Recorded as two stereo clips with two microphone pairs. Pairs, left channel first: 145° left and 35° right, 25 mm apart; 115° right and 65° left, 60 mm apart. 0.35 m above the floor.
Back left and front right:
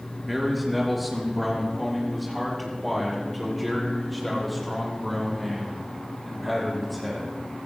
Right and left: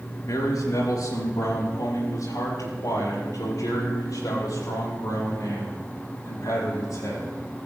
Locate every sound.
0.2 s a man speaking: 120° right, 4.5 m; by 7.3 s 125° right, 10.5 m